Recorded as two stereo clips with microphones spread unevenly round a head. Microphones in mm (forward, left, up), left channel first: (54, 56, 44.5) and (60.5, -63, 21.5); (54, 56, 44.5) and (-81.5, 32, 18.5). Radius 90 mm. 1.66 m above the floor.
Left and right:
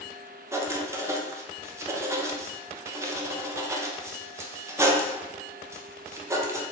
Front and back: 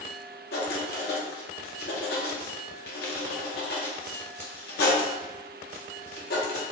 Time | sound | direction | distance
0.5 | writing | 15° right | 0.6 m